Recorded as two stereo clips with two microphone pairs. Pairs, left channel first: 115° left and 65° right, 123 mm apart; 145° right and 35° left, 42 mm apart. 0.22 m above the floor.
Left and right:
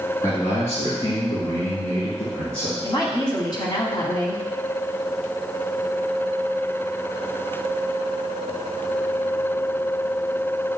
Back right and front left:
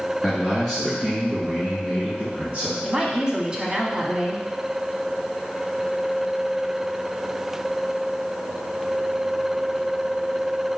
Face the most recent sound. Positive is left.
turn(degrees=95)